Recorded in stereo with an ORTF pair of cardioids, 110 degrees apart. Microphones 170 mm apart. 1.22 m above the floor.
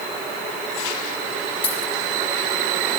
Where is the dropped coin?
30° left, 8 m.